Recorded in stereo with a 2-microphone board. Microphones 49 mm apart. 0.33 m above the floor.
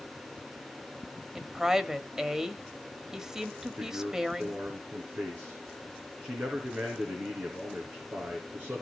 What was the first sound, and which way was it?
A woman speaking, 10° right (ahead or behind).